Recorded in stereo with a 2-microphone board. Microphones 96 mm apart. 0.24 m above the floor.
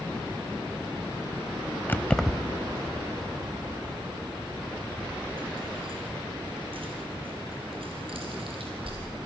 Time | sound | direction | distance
1.9 | keys jangling | 25° left (ahead or behind) | 0.7 m